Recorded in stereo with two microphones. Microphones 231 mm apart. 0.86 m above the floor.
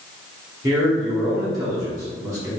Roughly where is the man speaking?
Centre.